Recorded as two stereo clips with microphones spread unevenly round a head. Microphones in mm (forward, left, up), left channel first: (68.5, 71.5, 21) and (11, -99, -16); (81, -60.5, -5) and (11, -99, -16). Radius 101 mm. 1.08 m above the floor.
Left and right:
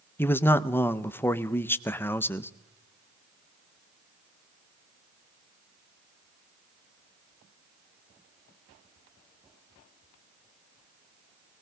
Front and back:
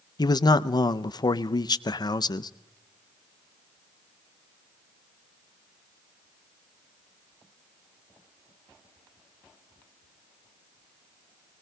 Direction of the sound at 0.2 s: 10° right.